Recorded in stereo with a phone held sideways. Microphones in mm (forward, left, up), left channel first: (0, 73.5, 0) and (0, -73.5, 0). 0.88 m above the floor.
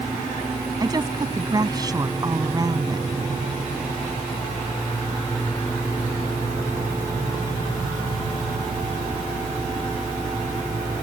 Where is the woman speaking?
25° right (ahead or behind).